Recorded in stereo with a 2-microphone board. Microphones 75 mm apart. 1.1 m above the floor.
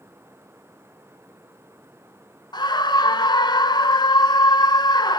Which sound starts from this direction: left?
A scream, at 2.5 s.